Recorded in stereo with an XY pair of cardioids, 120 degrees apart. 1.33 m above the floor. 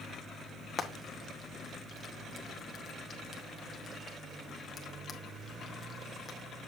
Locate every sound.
0.8 s frying: 30° left, 1.2 m